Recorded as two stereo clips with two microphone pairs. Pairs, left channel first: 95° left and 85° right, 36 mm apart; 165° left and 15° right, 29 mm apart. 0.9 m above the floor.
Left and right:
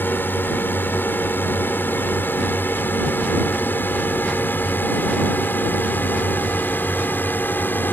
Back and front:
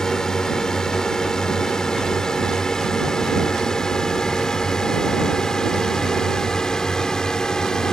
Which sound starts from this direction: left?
A drone, at 0.0 s.